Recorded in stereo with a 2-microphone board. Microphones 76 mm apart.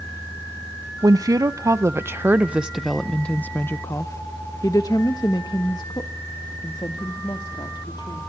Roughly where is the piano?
No piano in this recording.